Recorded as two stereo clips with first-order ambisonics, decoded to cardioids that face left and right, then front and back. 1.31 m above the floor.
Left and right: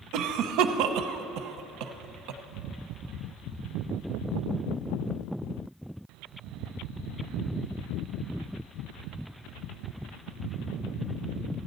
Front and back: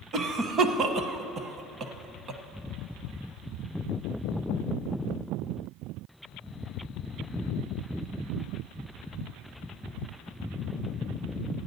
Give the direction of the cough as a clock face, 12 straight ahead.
4 o'clock.